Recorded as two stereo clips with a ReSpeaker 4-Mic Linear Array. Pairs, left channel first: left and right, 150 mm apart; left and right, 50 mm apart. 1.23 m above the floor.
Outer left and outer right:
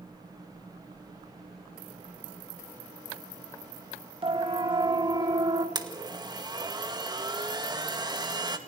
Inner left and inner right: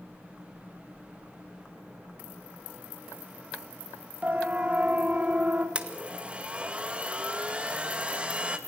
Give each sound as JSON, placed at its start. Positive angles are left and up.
{"t": 4.2, "sound": "a siren", "side_deg": -35, "distance_m": 2.5}
{"t": 5.8, "sound": "a blender", "side_deg": -25, "distance_m": 2.0}